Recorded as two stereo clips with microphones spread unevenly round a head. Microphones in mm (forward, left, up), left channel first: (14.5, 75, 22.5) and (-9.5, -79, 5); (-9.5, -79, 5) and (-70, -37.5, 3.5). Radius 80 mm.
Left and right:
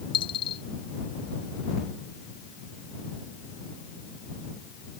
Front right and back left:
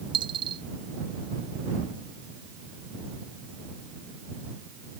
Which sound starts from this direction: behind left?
A dropped coin, at 0.1 s.